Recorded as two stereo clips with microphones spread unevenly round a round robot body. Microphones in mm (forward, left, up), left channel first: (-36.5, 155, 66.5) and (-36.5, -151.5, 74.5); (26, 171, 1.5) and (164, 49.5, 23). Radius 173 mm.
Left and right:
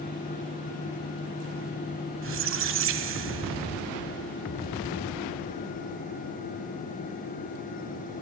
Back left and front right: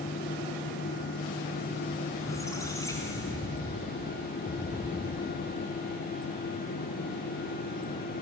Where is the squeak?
140° right, 1.0 m.